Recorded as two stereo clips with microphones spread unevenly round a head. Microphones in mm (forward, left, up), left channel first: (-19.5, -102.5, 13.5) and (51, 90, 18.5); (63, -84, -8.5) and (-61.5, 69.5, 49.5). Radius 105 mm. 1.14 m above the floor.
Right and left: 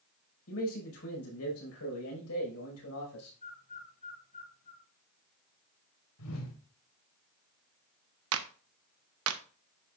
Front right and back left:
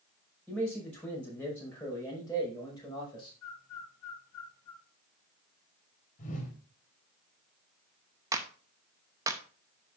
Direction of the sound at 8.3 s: 55° left.